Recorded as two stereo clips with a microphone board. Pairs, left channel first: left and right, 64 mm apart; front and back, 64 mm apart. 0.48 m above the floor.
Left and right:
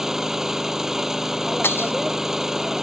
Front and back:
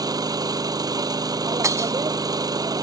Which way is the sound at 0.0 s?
175° right.